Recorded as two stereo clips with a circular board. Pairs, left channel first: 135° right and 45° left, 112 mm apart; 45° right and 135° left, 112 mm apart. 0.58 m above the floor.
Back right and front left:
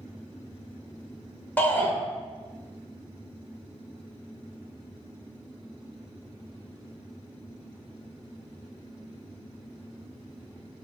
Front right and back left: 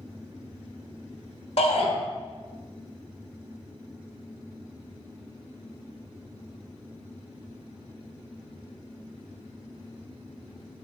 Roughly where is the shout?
Ahead right.